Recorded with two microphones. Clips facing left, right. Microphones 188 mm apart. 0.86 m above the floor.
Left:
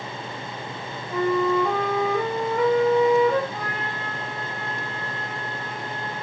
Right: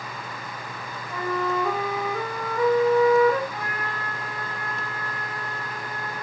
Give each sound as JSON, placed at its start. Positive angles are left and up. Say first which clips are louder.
{"t": 1.1, "sound": "a flute", "louder": "left 6 dB", "side_deg": 15, "distance_m": 7.5}
{"t": 3.5, "sound": "a trumpet", "louder": "left 1 dB", "side_deg": 25, "distance_m": 8.0}